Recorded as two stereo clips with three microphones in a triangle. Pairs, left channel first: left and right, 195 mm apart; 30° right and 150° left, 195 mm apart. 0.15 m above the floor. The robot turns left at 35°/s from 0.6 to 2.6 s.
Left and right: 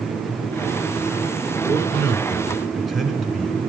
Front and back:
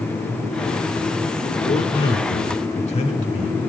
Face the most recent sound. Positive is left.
turn(degrees=0)